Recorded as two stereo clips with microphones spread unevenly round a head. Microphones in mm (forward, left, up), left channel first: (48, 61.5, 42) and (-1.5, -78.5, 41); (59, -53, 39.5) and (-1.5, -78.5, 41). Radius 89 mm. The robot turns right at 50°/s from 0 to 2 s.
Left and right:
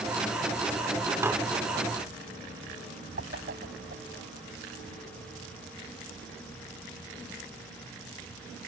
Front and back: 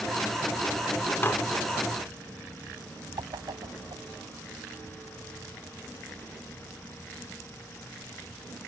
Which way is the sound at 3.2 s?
145° right.